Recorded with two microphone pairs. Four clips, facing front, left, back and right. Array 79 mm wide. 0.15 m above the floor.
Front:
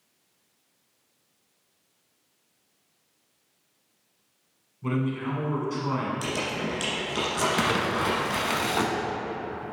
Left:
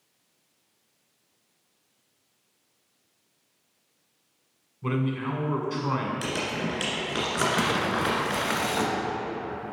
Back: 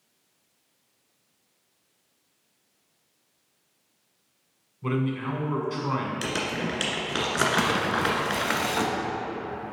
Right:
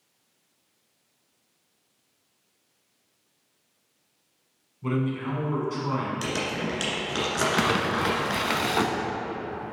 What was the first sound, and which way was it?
A man speaking, 130° left.